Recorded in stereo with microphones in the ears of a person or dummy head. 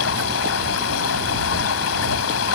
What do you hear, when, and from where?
0.0 s running water: 85° left